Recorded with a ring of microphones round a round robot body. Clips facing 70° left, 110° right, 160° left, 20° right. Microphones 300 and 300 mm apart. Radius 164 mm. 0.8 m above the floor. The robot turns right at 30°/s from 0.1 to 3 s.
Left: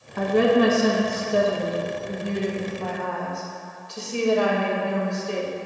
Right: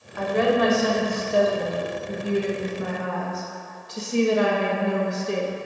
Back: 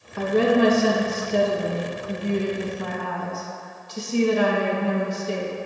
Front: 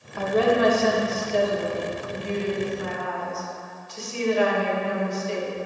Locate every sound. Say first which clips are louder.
0.2 s a woman speaking: left 3 dB, back 2 dB; 100° left, 1.1 m; by 5.5 s 175° right, 1.1 m